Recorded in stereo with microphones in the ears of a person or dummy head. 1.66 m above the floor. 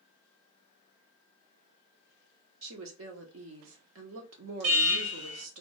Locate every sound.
2.6 s a woman speaking: 75° right (ahead or behind), 0.9 m
4.6 s an alarm: 65° right (ahead or behind), 1.5 m